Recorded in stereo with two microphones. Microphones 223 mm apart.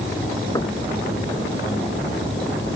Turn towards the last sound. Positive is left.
turn(degrees=15)  # may be behind; listen again after turning